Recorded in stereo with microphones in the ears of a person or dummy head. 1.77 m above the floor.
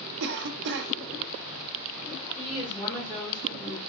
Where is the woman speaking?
20° left (ahead or behind), 1.6 m.